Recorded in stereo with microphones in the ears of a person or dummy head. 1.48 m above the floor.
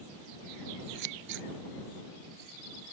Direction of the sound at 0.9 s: 60° right (ahead or behind).